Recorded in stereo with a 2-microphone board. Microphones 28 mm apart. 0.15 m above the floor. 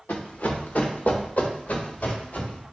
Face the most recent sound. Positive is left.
turn(degrees=70)  # may be behind; listen again after turning